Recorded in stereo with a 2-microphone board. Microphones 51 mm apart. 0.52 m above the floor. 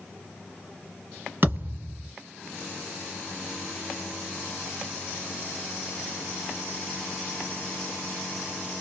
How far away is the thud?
About 2 m.